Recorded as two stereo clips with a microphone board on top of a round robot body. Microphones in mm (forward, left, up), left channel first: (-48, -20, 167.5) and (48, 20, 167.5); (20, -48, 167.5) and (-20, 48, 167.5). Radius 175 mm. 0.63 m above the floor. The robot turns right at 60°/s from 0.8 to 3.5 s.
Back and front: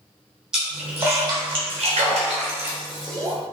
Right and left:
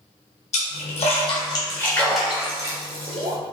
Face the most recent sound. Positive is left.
turn(degrees=100)